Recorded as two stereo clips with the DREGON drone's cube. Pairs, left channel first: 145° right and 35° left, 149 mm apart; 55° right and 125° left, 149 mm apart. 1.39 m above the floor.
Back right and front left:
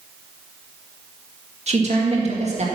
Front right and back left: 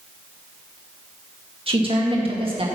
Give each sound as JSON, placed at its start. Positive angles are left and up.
{"t": 1.7, "sound": "a woman speaking", "azimuth_deg": 75, "distance_m": 2.0}